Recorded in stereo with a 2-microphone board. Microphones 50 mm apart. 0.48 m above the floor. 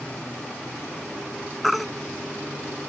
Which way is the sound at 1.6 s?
Centre (ahead or behind).